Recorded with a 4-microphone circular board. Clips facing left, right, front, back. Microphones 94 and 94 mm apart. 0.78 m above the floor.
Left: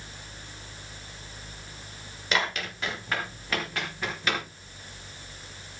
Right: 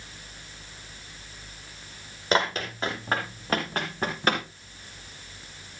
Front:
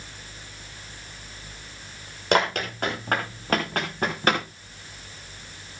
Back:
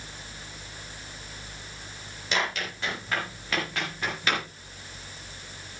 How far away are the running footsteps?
About 6 m.